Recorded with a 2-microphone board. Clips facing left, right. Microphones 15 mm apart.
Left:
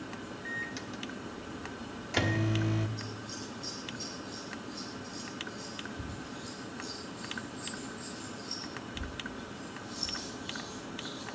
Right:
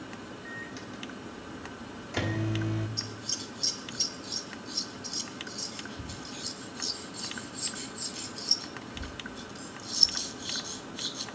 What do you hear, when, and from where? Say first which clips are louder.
0.5 s a microwave: left 4 dB; 15° left (ahead or behind), 1.3 m
3.0 s scissors: right 5 dB; 65° right (ahead or behind), 1.6 m